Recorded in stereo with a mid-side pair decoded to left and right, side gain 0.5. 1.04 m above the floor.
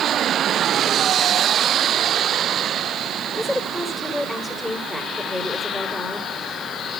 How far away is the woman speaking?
About 3.5 m.